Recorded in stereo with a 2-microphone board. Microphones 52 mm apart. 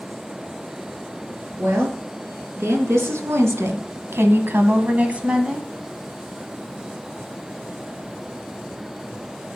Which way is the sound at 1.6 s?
55° right (ahead or behind).